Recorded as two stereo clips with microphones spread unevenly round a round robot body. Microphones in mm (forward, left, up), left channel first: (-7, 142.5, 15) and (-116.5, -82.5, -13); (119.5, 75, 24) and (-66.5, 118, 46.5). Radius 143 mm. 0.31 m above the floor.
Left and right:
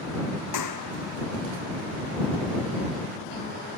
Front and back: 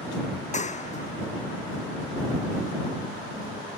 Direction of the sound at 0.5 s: 40° left.